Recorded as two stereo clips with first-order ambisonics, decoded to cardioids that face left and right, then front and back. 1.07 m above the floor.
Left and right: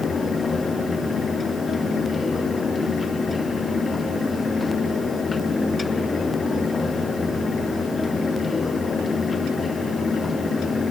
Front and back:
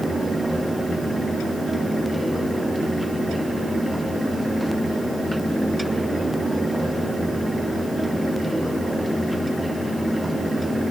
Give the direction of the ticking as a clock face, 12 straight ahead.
I don't hear ticking.